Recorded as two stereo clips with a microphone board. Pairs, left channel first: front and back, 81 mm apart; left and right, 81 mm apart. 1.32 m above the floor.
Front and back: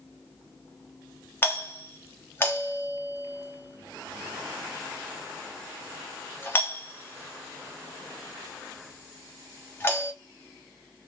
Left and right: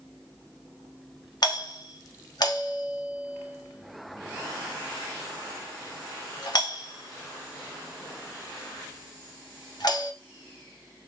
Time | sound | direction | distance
1.4 | a doorbell | 60° left | 1.1 m